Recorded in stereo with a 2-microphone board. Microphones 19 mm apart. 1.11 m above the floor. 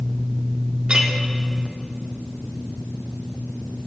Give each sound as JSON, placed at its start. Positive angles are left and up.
{"t": 0.9, "sound": "a clink", "side_deg": -50, "distance_m": 1.5}